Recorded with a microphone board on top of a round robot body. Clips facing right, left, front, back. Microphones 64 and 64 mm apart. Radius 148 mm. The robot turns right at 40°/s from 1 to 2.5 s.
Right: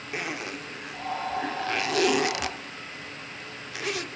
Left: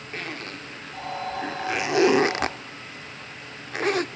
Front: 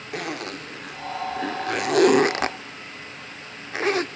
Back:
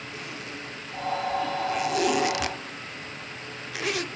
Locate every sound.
0.1 s a zipper: 10° right, 0.6 m; by 4.1 s 50° left, 0.6 m